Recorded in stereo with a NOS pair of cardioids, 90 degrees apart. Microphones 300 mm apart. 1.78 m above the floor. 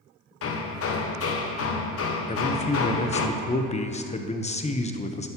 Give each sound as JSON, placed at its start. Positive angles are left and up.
{"t": 0.4, "sound": "hammering", "azimuth_deg": 50, "distance_m": 1.1}
{"t": 2.3, "sound": "a man speaking", "azimuth_deg": 20, "distance_m": 1.0}